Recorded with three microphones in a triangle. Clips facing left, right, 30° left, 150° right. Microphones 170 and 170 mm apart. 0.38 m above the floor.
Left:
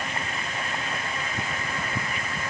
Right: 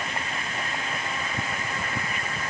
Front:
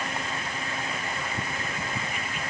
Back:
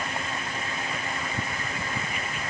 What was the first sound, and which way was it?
Only background noise.